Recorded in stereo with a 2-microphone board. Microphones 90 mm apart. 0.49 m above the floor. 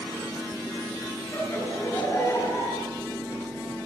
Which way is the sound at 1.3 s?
30° left (ahead or behind).